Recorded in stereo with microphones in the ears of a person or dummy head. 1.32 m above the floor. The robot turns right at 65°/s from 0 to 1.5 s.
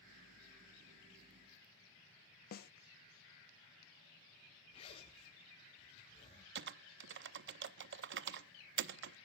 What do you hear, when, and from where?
2.5 s a snare drum: 50° left (ahead or behind), 0.6 m
4.7 s a zipper: 35° left (ahead or behind), 4.5 m
6.5 s typing on a keyboard: 55° right (ahead or behind), 0.6 m